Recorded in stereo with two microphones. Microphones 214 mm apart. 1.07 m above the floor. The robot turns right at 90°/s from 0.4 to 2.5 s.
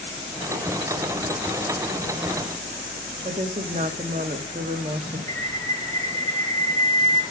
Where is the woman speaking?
35° right (ahead or behind), 1.5 m.